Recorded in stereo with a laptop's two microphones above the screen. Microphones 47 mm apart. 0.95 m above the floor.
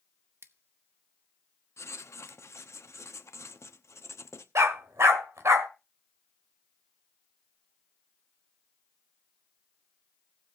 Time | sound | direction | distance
0.4 | scissors | 60° right (ahead or behind) | 0.7 m
1.8 | writing | 75° left (ahead or behind) | 0.9 m
4.5 | a dog barking | 75° right (ahead or behind) | 1.6 m